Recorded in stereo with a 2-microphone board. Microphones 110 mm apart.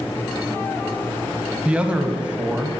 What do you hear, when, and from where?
1.6 s a man speaking: 10° right (ahead or behind), 1.2 m